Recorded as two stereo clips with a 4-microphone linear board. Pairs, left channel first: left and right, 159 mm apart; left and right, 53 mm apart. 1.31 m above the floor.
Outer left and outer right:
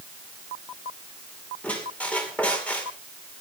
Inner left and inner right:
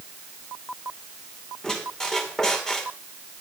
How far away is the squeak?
About 2.5 m.